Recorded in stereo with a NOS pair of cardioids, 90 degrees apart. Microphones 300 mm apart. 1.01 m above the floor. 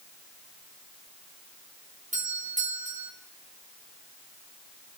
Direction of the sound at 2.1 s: 25° right.